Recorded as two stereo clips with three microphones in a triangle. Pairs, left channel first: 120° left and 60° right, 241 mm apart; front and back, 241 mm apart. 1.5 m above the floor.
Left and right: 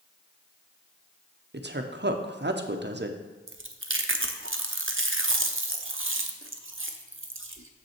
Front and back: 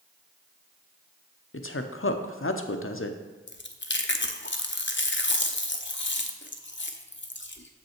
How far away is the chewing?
About 0.6 m.